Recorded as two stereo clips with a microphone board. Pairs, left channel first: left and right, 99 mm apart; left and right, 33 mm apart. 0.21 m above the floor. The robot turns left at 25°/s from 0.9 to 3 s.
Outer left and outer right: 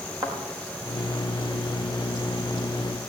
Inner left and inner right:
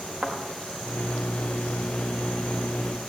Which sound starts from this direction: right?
A thud, at 0.2 s.